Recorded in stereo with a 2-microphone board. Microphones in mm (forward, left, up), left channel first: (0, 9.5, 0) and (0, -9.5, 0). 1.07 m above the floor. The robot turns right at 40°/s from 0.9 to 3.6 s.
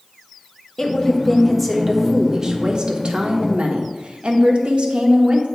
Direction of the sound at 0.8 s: 145° left.